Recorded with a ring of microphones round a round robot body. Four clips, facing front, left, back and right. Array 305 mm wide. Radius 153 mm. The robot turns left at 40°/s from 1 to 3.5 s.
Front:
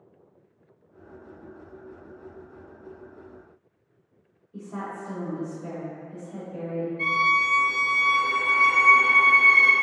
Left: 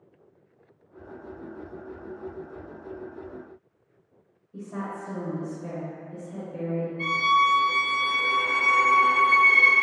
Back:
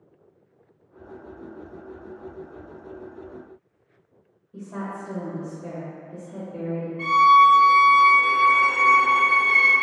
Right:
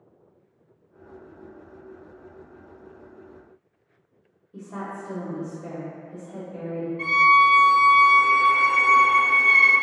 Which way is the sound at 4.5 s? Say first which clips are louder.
Even, back 2 dB; 120° right.